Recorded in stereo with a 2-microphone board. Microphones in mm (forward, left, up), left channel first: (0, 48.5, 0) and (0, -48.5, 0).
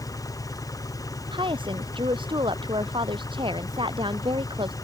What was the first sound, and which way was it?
An engine running, 35° left (ahead or behind).